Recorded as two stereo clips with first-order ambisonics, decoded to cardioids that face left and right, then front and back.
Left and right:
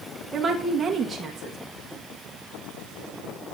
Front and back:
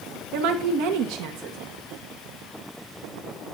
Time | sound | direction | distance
0.3 | a woman speaking | 165° right | 1.4 m